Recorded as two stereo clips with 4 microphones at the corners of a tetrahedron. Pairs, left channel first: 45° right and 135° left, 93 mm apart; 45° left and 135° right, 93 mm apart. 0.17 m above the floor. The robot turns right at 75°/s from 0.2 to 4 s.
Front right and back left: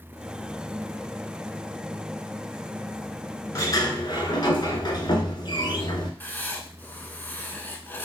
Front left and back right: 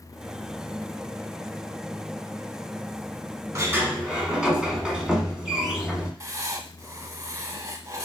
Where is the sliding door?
90° right, 1.0 m; by 6.1 s 55° right, 1.0 m.